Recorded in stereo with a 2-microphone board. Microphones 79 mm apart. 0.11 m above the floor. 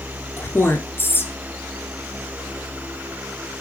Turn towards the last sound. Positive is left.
turn(degrees=30)  # may be behind; listen again after turning